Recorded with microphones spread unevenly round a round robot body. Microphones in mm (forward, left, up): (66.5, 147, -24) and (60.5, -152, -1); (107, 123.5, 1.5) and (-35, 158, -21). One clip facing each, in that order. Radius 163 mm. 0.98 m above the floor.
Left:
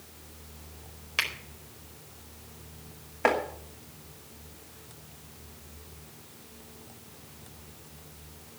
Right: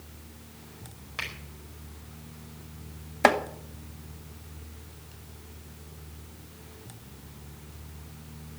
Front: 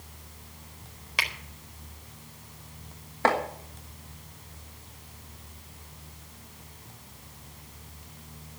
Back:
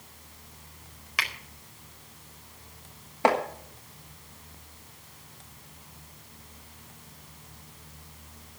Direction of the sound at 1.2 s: 50° left.